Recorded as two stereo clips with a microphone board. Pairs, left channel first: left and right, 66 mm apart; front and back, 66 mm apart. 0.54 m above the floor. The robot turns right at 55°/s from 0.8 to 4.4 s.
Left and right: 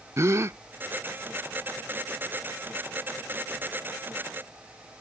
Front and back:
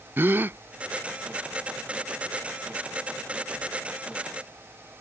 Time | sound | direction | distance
0.2 | a gasp | 125° right | ?